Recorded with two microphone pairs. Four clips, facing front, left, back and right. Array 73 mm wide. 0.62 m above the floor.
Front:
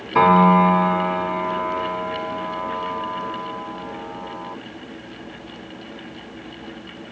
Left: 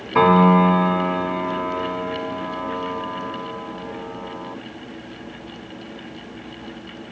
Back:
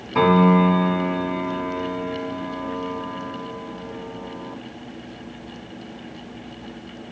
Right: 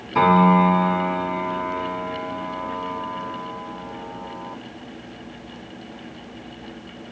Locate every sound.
0.1 s a piano: 65° left, 1.3 m